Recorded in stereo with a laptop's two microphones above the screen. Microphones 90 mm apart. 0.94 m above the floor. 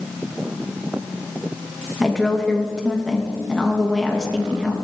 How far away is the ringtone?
I don't hear a ringtone.